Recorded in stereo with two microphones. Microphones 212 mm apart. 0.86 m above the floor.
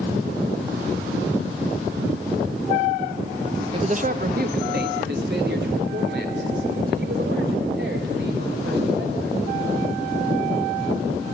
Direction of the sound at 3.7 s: 25° right (ahead or behind).